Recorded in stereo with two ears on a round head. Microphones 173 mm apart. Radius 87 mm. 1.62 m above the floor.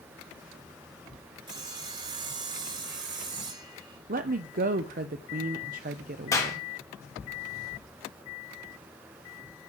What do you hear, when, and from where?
1.5 s sawing: 25° right (ahead or behind), 1.5 m
4.1 s a woman speaking: 45° right (ahead or behind), 0.5 m
6.3 s a clap: 20° left (ahead or behind), 2.0 m